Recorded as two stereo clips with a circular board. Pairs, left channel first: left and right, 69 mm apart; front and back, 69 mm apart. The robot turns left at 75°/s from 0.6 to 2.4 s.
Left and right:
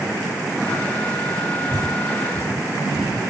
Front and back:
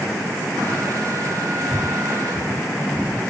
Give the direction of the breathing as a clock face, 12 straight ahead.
3 o'clock.